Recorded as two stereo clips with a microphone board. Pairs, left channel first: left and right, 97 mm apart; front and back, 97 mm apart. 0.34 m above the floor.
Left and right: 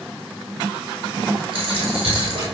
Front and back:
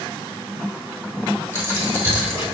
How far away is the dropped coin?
About 3.5 m.